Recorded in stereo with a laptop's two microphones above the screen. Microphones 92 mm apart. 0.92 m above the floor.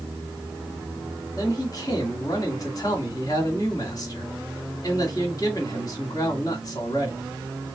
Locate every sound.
1.4 s a man speaking: 45° left (ahead or behind), 2.0 m